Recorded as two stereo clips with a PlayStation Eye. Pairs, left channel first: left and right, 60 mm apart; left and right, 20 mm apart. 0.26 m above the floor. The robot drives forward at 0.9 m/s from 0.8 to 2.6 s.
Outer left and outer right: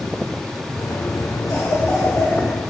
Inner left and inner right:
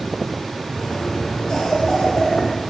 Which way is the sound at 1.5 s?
70° left (ahead or behind).